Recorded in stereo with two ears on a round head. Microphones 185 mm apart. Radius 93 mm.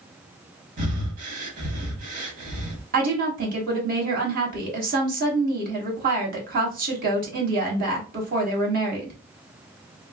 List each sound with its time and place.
0.8 s breathing: 35° right (ahead or behind), 0.9 m
2.9 s a woman speaking: 45° right (ahead or behind), 1.2 m